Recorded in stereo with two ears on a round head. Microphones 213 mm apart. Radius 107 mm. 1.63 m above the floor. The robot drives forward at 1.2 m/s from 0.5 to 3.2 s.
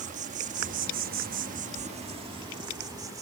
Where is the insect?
30° right (ahead or behind); by 3.2 s 15° right (ahead or behind).